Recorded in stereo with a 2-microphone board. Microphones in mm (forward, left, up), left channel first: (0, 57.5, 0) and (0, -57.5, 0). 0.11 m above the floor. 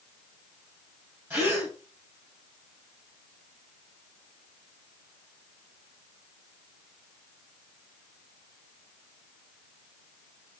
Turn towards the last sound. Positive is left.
turn(degrees=-20)  # may be behind; listen again after turning